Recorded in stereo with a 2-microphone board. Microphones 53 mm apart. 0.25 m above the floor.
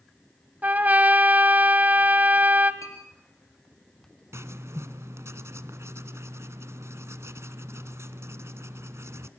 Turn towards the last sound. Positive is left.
turn(degrees=-65)  # may be behind; listen again after turning